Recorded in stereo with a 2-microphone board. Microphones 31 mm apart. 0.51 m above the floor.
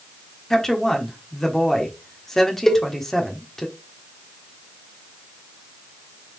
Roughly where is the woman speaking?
Centre.